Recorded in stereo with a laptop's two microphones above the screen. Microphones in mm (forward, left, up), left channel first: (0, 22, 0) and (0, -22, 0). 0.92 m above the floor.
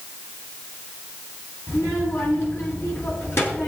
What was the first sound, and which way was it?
A child speaking, 65° left (ahead or behind).